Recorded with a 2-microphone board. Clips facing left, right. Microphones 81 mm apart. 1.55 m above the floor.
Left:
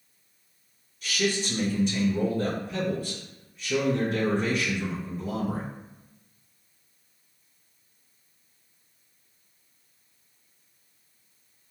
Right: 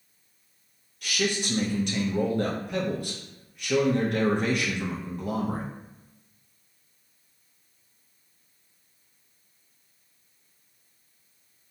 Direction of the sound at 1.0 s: 70° right (ahead or behind).